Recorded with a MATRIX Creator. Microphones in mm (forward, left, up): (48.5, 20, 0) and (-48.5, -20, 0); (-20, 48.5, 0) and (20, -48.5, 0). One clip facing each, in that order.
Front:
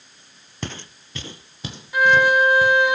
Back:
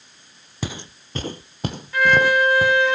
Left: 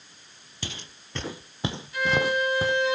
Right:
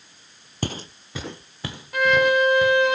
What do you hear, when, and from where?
0.6 s footsteps: 75° right, 0.7 m; by 2.7 s 160° left, 1.9 m
1.9 s a violin: 55° right, 1.3 m